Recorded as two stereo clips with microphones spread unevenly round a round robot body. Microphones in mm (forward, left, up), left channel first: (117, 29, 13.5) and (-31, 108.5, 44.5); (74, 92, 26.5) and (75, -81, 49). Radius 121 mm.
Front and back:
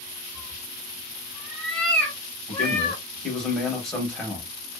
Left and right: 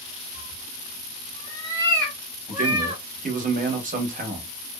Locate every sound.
0.3 s a cat meowing: 100° left, 1.1 m; by 3.0 s 85° right, 1.0 m
2.5 s a man speaking: 100° right, 1.1 m